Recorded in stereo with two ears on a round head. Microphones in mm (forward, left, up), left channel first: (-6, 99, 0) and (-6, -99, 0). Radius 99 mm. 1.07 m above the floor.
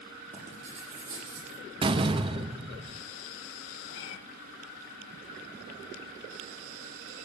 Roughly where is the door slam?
Right.